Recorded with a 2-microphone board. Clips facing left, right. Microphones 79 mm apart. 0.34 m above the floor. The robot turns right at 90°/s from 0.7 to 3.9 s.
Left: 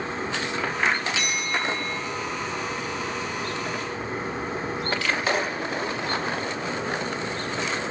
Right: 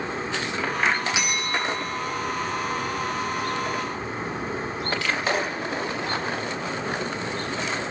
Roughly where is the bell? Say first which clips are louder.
Right 1 dB; ahead.